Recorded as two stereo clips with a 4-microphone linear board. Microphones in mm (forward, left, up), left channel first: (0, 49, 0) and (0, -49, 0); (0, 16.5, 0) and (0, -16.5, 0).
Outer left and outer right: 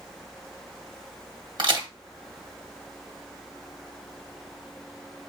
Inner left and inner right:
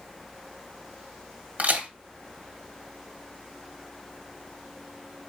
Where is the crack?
55° right (ahead or behind), 1.5 m.